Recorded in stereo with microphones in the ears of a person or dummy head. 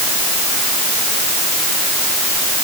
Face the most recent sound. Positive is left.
No sound to turn to.